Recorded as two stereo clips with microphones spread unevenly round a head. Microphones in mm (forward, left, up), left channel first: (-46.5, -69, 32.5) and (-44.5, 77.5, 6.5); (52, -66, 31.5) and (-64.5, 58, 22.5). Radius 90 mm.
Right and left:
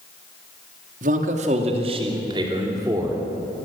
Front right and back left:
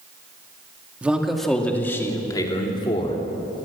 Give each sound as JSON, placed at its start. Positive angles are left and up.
{"t": 1.0, "sound": "a man speaking", "azimuth_deg": 50, "distance_m": 2.0}